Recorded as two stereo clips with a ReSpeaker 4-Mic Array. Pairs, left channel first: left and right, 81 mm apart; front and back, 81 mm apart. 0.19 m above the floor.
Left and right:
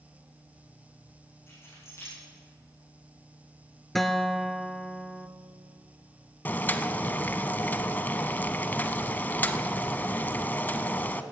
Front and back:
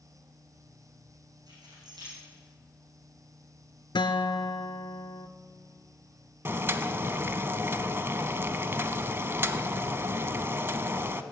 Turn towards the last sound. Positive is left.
turn(degrees=145)